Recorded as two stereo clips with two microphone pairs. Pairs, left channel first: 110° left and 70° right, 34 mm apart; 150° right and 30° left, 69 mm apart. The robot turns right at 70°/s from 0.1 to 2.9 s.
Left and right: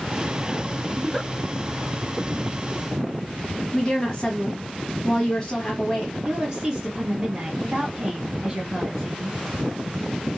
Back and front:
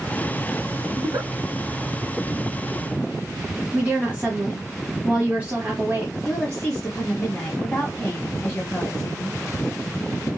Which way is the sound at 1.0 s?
15° left.